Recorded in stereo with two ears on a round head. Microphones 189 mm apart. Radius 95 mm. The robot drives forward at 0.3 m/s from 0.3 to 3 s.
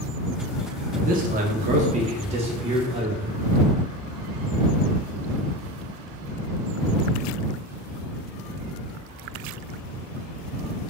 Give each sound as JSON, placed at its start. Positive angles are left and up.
{"t": 0.9, "sound": "a man speaking", "side_deg": -40, "distance_m": 0.7}